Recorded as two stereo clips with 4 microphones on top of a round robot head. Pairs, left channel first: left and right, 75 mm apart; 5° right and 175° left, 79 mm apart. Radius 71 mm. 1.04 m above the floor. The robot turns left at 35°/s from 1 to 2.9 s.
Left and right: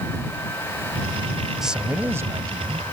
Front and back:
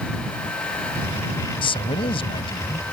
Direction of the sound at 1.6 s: 5° right.